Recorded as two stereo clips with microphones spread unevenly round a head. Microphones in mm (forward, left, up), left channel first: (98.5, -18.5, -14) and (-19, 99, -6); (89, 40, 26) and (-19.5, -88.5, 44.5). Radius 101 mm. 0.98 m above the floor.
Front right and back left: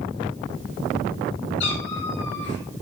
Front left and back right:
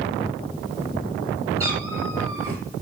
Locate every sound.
1.6 s a cat meowing: 55° right, 3.5 m